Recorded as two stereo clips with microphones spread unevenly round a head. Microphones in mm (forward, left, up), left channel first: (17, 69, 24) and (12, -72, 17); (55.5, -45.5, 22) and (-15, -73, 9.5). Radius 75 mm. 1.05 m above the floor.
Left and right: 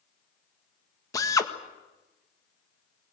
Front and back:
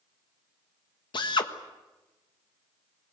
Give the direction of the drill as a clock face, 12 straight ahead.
11 o'clock.